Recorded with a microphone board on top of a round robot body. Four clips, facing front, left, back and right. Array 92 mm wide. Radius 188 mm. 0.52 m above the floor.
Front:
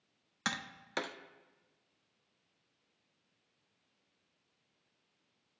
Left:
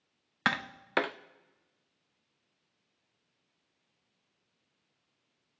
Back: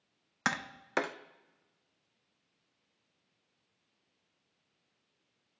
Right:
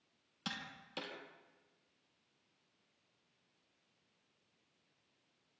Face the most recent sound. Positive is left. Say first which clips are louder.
# left 16 dB, back 5 dB
turn(degrees=115)